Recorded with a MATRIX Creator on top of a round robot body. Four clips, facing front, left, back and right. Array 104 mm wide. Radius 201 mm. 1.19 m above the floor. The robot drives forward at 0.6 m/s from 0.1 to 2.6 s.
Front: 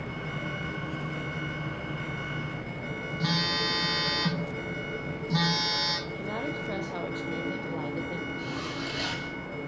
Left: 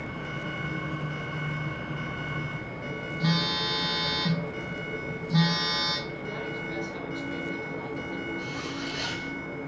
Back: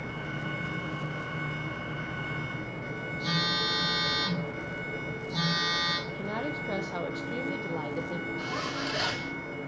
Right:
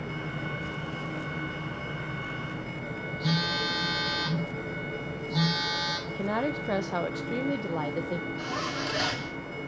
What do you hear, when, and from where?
3.2 s a phone buzzing: 30° left, 3 m
6.1 s a woman speaking: 95° right, 1.0 m
8.4 s a zipper: 125° right, 2.5 m